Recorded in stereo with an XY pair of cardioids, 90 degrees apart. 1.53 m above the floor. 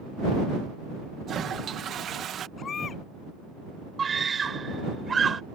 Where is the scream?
40° right.